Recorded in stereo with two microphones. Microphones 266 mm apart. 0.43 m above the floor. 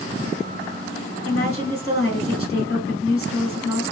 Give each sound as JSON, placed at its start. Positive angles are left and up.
{"t": 1.2, "sound": "a woman speaking", "side_deg": 55, "distance_m": 2.0}